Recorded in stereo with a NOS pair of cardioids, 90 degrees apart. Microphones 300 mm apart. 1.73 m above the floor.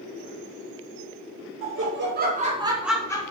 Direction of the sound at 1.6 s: 50° right.